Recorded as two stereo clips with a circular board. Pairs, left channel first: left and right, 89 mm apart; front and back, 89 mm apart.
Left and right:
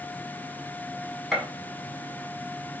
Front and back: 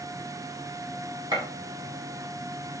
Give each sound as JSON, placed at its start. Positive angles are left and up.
{"t": 1.3, "sound": "a gunshot", "azimuth_deg": 175, "distance_m": 1.4}